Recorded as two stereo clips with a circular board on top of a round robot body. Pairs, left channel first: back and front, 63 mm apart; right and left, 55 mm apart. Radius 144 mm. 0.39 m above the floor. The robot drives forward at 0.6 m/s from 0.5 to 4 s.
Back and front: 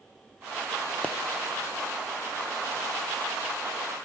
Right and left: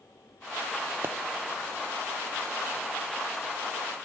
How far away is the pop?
About 0.6 m.